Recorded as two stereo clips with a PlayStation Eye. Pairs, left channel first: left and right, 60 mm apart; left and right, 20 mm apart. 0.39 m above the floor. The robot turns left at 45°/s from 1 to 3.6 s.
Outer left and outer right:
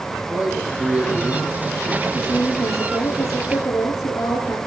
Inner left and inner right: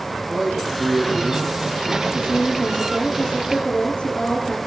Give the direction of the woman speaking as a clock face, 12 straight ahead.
7 o'clock.